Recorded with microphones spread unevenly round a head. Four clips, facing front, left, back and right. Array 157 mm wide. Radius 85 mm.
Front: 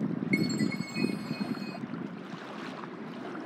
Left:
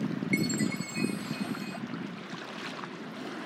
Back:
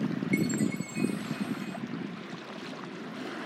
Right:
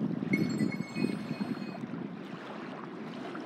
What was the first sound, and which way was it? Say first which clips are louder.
A chime: even, back 1 dB; 115° left.